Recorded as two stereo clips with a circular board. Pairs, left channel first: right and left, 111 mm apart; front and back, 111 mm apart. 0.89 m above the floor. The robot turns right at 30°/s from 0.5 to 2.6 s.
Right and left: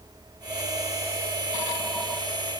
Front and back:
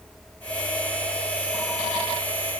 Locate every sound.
Only background noise.